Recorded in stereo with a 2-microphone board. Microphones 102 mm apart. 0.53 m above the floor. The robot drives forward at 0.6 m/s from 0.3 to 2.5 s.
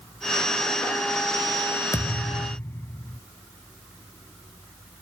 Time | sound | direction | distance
1.9 | a thud | 35° left (ahead or behind) | ?